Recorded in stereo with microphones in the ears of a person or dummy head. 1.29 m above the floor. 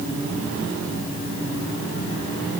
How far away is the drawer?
No drawer in this recording.